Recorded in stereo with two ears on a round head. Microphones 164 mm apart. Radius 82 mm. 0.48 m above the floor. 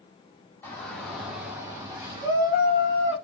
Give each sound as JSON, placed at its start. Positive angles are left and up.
{"t": 0.6, "sound": "a shout", "side_deg": 10, "distance_m": 1.2}